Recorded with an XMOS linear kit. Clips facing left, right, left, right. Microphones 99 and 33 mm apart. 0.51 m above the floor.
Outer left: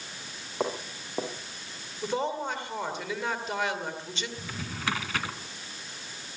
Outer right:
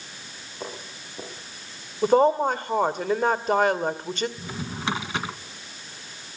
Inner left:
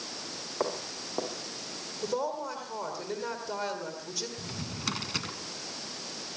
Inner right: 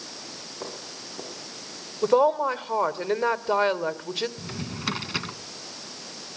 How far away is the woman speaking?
About 2 m.